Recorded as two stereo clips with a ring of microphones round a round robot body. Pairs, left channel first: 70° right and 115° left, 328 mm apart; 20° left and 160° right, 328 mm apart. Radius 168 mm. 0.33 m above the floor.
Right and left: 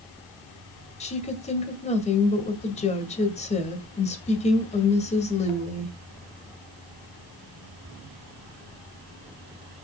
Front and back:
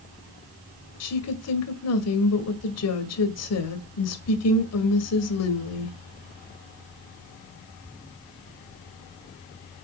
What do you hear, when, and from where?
1.0 s a woman speaking: straight ahead, 2.0 m